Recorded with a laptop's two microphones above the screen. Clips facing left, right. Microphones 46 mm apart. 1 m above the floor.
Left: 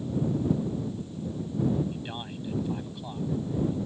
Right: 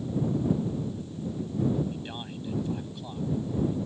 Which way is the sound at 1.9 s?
10° left (ahead or behind).